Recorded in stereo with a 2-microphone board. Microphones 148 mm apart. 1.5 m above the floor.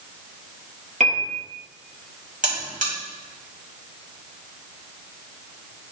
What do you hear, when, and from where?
1.0 s a piano: 50° right (ahead or behind), 1.1 m
2.4 s a buzzer: 60° right (ahead or behind), 1.7 m